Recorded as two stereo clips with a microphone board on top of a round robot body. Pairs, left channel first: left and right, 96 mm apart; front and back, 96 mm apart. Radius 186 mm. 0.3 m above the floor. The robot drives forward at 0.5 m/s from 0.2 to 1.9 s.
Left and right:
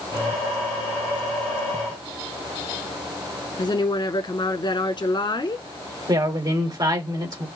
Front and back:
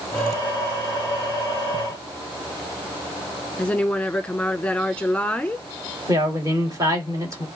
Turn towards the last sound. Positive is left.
turn(degrees=-130)